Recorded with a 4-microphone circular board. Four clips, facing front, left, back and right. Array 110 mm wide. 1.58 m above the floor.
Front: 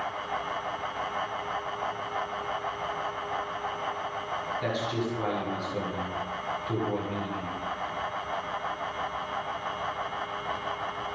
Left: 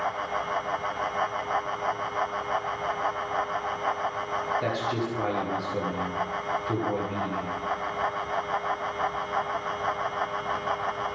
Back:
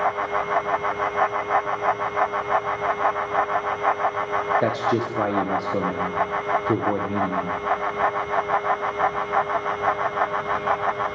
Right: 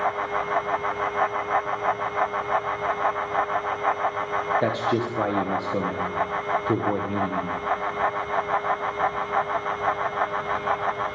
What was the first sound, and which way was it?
A man speaking, 150° right.